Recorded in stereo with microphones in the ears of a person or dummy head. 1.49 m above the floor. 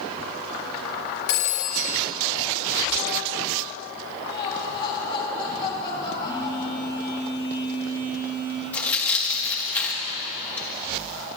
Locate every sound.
1.3 s a phone ringing: 55° left (ahead or behind), 1.1 m
4.3 s laughter: 25° left (ahead or behind), 4.5 m
6.2 s a phone buzzing: 15° right (ahead or behind), 4.5 m
8.7 s tearing paper: 10° left (ahead or behind), 1.4 m